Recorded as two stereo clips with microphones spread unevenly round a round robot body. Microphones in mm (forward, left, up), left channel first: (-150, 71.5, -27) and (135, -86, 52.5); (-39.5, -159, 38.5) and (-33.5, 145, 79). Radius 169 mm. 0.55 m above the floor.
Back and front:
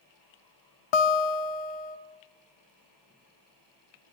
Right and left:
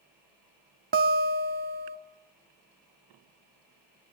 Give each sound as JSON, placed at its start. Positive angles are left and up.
{"t": 0.9, "sound": "a guitar", "azimuth_deg": 145, "distance_m": 0.9}